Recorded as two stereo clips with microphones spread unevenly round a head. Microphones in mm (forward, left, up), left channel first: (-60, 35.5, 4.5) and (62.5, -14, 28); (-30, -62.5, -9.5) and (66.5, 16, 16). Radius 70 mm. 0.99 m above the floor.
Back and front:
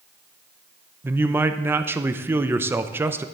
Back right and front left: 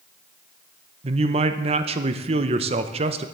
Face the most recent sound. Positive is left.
turn(degrees=55)